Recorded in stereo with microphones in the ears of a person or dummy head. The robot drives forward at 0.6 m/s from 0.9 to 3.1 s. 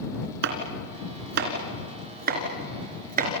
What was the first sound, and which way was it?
Chopping, 55° right (ahead or behind).